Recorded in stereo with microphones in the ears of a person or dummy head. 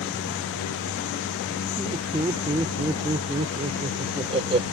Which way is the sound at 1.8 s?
15° right (ahead or behind).